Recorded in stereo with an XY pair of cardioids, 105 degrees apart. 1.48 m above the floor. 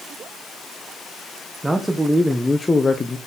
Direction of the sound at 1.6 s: 10° right.